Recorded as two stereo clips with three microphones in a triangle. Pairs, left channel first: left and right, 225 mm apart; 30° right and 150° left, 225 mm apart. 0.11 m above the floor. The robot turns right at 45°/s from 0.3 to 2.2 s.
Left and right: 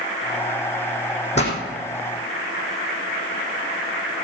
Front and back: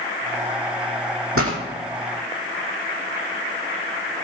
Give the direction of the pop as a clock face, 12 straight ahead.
7 o'clock.